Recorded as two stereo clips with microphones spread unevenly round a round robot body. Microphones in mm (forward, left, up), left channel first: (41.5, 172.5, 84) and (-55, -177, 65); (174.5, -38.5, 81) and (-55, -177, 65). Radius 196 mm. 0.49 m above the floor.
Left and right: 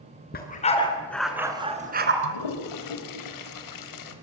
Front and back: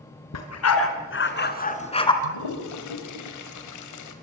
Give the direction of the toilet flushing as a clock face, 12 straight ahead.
11 o'clock.